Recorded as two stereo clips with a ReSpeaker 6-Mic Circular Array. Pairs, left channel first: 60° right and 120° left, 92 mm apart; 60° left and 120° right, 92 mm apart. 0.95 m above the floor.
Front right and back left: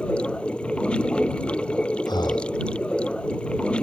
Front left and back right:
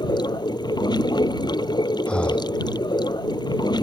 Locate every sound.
0.0 s running water: 20° left
2.1 s breathing: 20° right